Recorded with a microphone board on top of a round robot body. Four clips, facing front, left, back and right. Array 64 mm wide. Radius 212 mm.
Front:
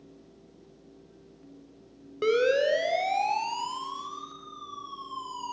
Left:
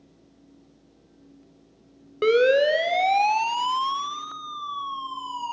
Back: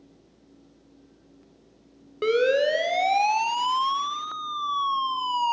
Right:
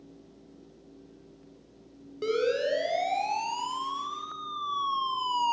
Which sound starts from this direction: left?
A siren, at 2.2 s.